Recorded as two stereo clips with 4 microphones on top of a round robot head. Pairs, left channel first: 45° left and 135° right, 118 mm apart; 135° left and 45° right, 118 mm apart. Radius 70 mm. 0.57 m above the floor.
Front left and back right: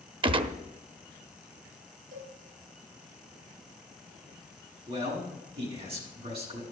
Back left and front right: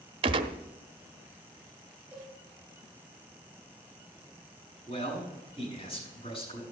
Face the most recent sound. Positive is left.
turn(degrees=-175)